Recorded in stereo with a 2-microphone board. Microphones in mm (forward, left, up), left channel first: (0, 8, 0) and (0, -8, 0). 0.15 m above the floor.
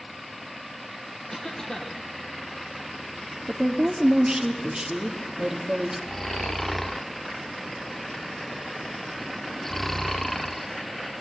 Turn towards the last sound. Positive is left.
turn(degrees=15)  # may be behind; listen again after turning